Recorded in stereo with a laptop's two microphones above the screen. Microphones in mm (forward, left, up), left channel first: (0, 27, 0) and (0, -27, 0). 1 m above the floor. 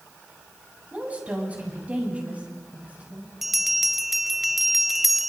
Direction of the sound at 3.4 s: 5° right (ahead or behind).